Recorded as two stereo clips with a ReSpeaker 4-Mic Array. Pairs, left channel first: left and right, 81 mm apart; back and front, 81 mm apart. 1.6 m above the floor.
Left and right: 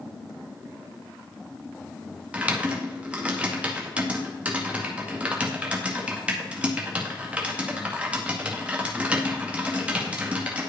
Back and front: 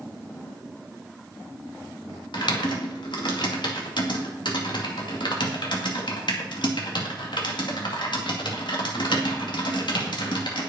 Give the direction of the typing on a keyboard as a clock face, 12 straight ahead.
5 o'clock.